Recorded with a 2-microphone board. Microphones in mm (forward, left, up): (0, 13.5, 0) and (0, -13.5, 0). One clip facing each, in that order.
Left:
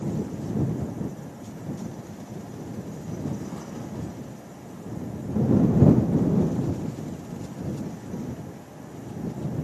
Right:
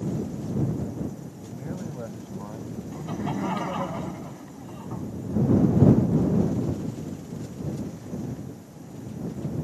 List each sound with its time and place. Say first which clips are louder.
1.4 s a man speaking: right 1 dB; 80° right
2.9 s laughter: right 5 dB; 70° right (ahead or behind)